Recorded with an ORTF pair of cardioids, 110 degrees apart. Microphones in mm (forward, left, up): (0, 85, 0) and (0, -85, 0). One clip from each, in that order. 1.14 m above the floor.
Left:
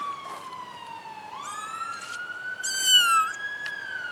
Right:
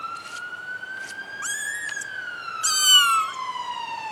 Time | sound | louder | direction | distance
1.4 | a cat meowing | right 4 dB | 70° right | 1.4 m